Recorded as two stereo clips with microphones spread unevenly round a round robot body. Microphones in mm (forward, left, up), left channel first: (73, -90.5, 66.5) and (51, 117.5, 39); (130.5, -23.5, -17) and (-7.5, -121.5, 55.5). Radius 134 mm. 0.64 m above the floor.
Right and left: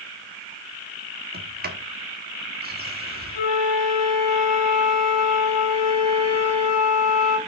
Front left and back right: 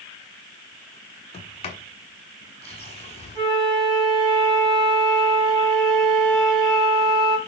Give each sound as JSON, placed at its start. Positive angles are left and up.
{"t": 1.3, "sound": "a sliding door", "azimuth_deg": 70, "distance_m": 1.3}
{"t": 3.4, "sound": "a flute", "azimuth_deg": -75, "distance_m": 3.5}